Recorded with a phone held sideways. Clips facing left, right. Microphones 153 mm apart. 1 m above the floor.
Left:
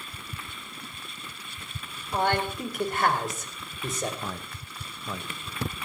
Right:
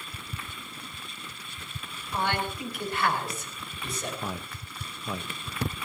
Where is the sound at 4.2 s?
10° right (ahead or behind), 0.7 m.